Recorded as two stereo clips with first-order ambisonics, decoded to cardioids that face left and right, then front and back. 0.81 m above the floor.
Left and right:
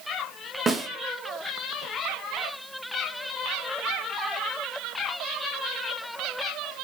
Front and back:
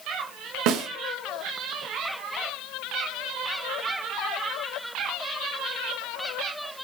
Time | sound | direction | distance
0.7 | a snare drum | 165° right | 0.7 m